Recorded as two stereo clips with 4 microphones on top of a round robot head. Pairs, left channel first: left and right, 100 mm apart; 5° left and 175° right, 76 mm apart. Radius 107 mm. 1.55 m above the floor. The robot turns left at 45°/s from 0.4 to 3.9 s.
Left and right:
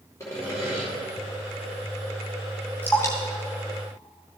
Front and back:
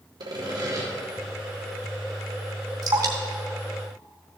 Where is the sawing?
160° left, 2 m; by 0.9 s 140° left, 2 m.